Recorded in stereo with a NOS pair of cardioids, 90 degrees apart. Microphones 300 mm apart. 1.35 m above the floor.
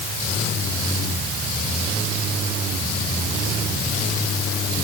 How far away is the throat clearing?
I don't hear throat clearing.